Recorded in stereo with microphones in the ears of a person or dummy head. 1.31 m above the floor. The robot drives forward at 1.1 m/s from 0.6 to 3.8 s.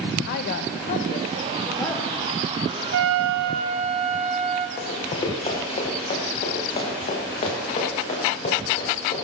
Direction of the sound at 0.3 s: 60° left (ahead or behind).